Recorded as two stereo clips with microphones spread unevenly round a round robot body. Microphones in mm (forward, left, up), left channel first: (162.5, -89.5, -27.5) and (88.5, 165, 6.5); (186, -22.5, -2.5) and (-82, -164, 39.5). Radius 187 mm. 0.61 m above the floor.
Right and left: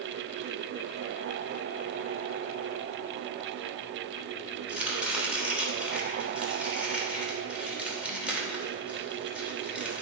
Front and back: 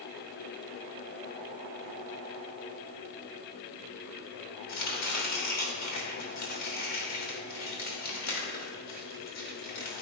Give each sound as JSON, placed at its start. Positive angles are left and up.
{"t": 4.7, "sound": "chopping", "azimuth_deg": 15, "distance_m": 2.5}